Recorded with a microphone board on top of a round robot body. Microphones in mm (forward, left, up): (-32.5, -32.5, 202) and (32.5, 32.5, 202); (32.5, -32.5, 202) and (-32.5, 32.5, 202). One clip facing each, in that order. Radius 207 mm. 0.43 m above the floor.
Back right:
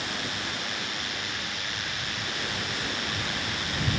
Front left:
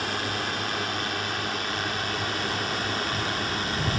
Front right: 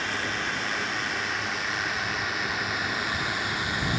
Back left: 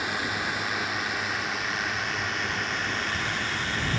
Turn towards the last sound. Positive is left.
turn(degrees=25)